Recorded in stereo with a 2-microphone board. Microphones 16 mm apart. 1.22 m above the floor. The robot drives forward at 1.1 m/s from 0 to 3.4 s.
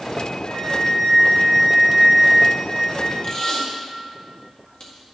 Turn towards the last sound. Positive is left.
turn(degrees=45)  # may be behind; listen again after turning